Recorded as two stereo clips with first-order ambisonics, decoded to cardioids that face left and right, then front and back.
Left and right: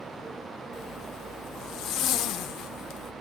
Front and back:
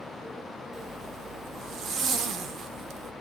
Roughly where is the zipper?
Behind left.